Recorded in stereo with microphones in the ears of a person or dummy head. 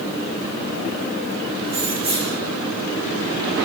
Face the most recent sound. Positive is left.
turn(degrees=-25)  # may be behind; listen again after turning